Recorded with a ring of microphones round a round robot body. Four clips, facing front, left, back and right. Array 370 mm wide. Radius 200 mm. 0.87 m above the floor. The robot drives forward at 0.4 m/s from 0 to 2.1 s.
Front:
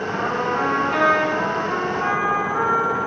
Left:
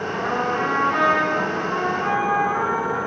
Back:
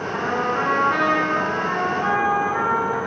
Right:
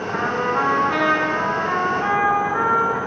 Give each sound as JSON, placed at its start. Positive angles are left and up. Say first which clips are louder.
{"t": 0.1, "sound": "a trumpet", "louder": "right 3 dB, back 1 dB", "azimuth_deg": -90, "distance_m": 5.0}